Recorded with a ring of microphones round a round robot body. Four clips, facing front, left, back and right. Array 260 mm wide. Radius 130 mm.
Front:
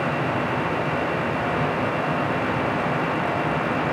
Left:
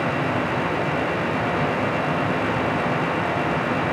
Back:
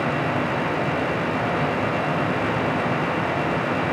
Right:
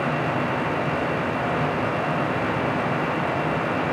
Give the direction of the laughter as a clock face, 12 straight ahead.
No laughter in this recording.